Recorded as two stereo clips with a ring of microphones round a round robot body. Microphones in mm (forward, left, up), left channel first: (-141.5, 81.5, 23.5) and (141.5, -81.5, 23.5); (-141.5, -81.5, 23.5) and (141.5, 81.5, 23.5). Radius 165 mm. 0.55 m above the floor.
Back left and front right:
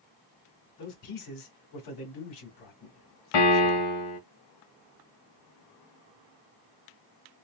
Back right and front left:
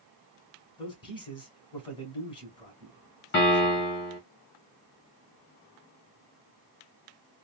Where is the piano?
150° left, 1.8 m.